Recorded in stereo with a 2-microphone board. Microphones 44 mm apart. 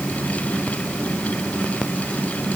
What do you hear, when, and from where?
Only background noise.